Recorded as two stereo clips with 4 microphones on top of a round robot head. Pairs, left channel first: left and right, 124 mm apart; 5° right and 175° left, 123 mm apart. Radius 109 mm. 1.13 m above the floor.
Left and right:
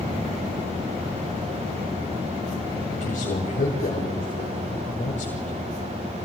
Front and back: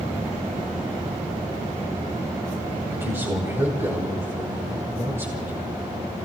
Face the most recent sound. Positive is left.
turn(degrees=105)